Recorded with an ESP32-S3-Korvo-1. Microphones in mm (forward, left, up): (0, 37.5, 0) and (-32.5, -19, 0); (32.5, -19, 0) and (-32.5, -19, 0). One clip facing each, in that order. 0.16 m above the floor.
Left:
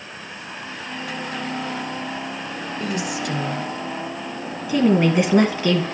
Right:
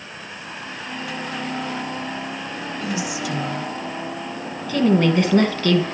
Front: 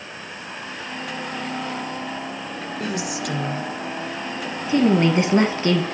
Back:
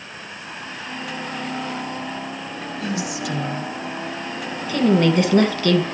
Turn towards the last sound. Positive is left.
turn(degrees=10)